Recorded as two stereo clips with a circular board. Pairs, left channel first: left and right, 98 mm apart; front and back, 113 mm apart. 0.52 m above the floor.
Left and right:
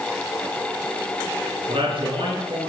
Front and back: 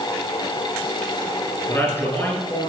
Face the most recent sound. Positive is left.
turn(degrees=-70)